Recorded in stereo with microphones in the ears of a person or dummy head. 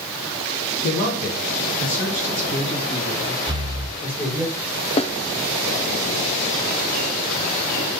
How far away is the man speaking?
About 3.5 m.